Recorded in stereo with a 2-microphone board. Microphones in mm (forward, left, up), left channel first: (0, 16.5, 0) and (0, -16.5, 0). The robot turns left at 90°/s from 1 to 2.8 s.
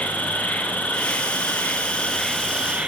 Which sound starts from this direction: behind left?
An insect, at 0.0 s.